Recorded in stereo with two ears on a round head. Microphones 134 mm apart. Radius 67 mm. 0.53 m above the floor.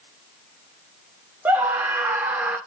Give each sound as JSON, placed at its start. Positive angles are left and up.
{"t": 1.4, "sound": "a scream", "side_deg": -15, "distance_m": 1.5}